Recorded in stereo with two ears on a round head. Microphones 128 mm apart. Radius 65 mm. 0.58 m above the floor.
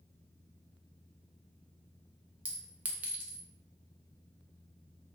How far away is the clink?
About 0.5 m.